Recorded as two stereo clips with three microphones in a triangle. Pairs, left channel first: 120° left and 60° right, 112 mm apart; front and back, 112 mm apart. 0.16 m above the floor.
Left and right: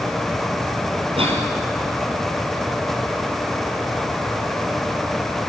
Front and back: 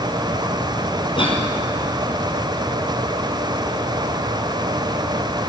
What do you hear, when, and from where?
1.2 s a cough: 35° right, 4.5 m